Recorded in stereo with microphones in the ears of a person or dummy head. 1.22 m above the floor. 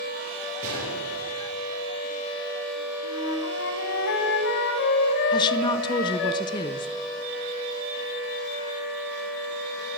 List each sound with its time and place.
0.6 s a gunshot: 50° right (ahead or behind), 9.5 m
3.0 s a flute: 60° left (ahead or behind), 2 m
5.3 s a woman speaking: 20° left (ahead or behind), 0.8 m